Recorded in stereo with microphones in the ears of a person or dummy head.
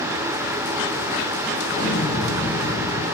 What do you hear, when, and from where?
1.7 s an explosion: 75° left (ahead or behind), 4.5 m